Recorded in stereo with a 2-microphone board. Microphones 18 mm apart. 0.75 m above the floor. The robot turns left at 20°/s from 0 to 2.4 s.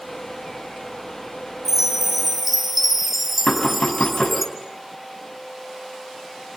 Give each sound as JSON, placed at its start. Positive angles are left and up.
{"t": 1.6, "sound": "a chime", "side_deg": -25, "distance_m": 2.0}
{"t": 3.5, "sound": "knocking", "side_deg": 85, "distance_m": 6.0}